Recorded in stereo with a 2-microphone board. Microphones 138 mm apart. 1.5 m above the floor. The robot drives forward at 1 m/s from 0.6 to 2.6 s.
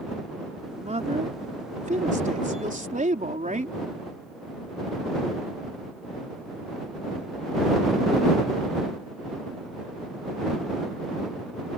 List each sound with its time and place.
0.7 s a woman speaking: 60° right (ahead or behind); by 3.8 s 85° right